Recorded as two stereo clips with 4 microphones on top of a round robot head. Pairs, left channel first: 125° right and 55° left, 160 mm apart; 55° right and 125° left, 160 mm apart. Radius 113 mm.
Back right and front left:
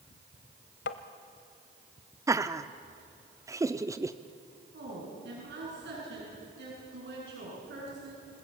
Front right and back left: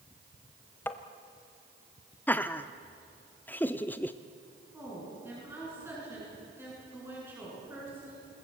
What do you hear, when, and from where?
0.9 s tapping: 130° right, 1.2 m
2.3 s laughter: 15° left, 0.7 m
4.7 s a woman speaking: 50° left, 8 m